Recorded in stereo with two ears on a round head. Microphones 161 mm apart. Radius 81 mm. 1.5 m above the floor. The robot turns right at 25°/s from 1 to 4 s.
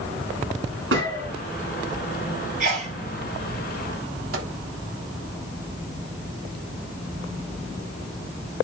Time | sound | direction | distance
0.9 | a gunshot | 70° right (ahead or behind) | 4 m
2.6 | a sneeze | 45° right (ahead or behind) | 3.5 m
4.3 | a microwave | 70° right (ahead or behind) | 2.5 m